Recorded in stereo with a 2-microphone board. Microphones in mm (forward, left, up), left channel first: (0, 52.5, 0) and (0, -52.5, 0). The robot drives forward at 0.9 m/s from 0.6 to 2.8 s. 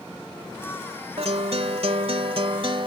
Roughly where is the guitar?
Right.